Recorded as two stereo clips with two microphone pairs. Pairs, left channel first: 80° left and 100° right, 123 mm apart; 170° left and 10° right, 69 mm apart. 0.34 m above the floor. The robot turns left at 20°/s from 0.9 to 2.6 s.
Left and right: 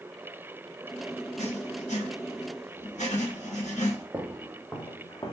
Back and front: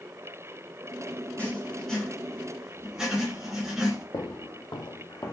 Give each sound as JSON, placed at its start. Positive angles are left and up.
{"t": 1.4, "sound": "writing", "azimuth_deg": 95, "distance_m": 1.8}
{"t": 4.1, "sound": "footsteps", "azimuth_deg": -175, "distance_m": 1.1}